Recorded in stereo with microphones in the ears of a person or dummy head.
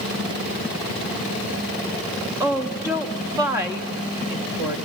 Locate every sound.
2.4 s a woman speaking: 15° right (ahead or behind), 1.1 m